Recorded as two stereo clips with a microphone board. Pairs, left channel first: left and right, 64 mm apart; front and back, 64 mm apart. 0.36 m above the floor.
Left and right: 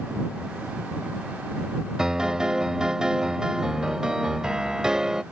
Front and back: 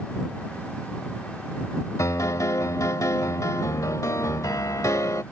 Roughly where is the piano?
Ahead.